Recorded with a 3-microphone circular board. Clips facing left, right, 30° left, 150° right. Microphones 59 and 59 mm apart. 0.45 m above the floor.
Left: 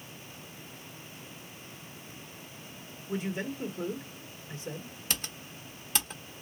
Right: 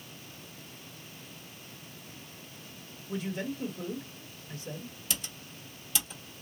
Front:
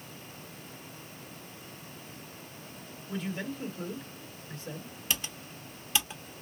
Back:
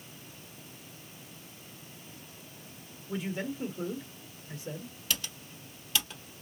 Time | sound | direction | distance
3.1 | a man speaking | 145° left | 1.2 m
5.1 | typing on a keyboard | 90° left | 1.1 m